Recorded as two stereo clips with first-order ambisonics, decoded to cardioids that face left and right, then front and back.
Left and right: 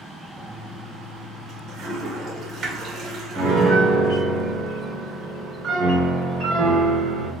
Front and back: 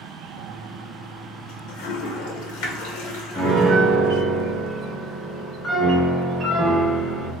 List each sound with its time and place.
0.4 s a toilet flushing: 15° right, 0.8 m
3.3 s a piano: 80° right, 1.2 m